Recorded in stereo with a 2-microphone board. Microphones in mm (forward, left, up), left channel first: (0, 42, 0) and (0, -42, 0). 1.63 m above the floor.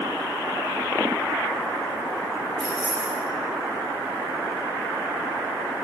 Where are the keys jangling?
15° left (ahead or behind), 2 m.